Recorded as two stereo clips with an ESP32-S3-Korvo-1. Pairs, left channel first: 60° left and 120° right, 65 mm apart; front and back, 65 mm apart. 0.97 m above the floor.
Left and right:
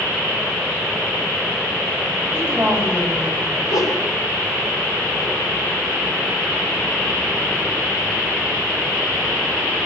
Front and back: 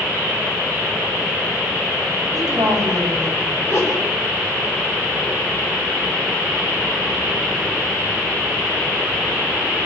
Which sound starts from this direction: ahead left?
A whoosh, at 3.6 s.